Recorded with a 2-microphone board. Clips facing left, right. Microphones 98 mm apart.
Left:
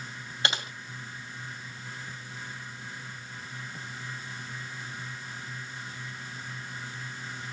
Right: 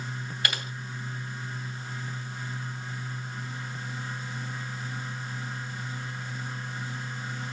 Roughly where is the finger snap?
I don't hear a finger snap.